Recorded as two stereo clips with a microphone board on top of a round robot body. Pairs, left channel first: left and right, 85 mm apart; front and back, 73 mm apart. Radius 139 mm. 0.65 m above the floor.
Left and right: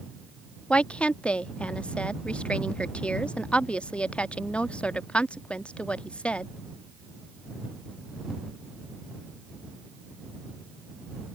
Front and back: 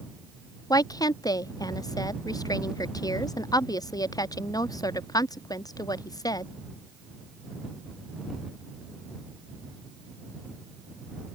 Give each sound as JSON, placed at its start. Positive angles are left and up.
{"t": 0.7, "sound": "a woman speaking", "azimuth_deg": 15}